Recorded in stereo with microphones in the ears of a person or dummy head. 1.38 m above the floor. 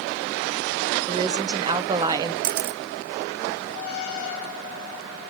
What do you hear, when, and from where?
1.1 s a woman speaking: 20° right (ahead or behind), 0.8 m
2.4 s a camera shutter: 60° right (ahead or behind), 0.9 m